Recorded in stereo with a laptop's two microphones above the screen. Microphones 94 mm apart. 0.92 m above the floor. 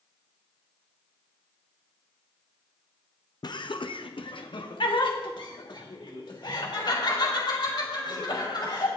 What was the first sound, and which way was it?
Laughter, 50° left (ahead or behind).